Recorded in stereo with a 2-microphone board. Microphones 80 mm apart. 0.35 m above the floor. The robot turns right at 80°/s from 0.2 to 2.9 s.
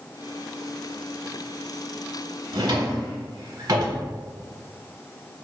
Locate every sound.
2.5 s a drawer: 80° right, 0.9 m; by 4.1 s 50° right (ahead or behind), 0.9 m